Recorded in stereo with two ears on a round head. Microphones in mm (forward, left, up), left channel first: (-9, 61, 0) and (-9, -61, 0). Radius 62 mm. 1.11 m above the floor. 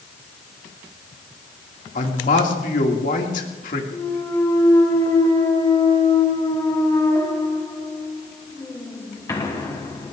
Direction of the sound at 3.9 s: 20° left (ahead or behind).